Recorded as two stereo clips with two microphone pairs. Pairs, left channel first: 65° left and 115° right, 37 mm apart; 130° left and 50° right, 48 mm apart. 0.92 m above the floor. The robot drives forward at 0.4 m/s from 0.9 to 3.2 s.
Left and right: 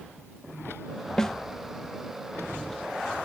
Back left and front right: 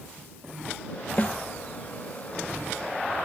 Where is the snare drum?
130° left, 0.7 m; by 1.4 s 135° left, 0.7 m.